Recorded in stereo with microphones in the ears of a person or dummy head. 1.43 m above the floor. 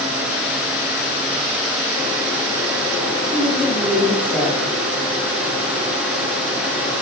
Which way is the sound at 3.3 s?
10° left (ahead or behind).